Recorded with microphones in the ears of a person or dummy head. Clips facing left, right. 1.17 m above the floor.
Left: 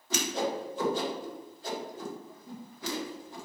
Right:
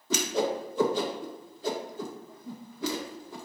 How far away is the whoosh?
About 1.4 m.